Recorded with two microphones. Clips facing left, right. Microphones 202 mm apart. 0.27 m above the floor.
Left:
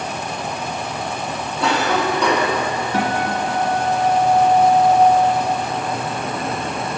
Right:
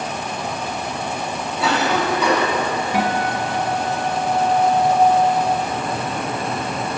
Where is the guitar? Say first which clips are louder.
Even; 15° right (ahead or behind), 1.1 m.